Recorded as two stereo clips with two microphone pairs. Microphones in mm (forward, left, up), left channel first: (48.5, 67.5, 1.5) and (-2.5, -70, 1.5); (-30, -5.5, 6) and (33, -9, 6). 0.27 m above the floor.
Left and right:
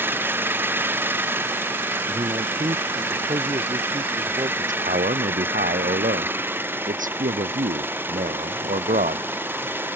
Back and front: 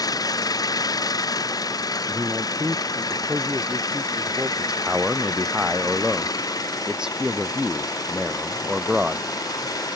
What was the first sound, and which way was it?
An engine running, 175° left.